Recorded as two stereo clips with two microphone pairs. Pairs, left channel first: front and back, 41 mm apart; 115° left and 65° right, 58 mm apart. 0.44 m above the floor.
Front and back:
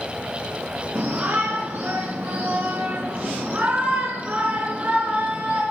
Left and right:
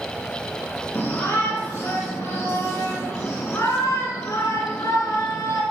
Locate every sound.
0.9 s a shout: 170° left, 3.5 m; by 5.6 s 135° left, 5 m